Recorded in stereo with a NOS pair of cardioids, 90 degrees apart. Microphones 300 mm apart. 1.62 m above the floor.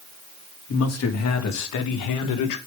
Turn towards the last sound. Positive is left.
turn(degrees=80)